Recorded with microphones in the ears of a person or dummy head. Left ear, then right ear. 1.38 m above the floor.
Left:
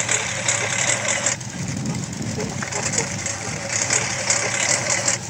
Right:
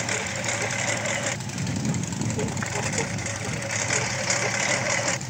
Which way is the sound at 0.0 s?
20° left (ahead or behind).